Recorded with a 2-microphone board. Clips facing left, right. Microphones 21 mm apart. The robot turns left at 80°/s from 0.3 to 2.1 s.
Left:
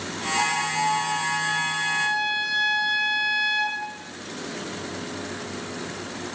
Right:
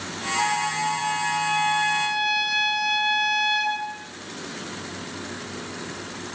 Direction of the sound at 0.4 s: 40° left.